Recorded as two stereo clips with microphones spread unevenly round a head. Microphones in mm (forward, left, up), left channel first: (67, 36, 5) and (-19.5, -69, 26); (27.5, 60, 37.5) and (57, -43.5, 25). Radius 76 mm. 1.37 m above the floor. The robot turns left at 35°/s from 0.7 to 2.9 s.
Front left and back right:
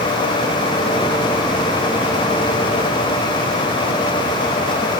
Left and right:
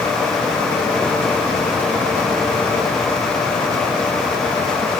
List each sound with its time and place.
Only background noise.